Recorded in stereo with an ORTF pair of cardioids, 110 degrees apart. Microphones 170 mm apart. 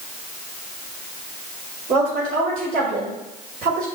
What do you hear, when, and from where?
1.9 s a woman speaking: 65° right, 4.5 m